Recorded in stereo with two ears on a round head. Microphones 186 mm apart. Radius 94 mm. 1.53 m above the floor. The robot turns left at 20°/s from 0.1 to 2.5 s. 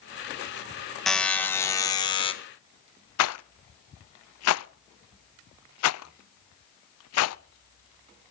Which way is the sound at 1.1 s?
Centre (ahead or behind).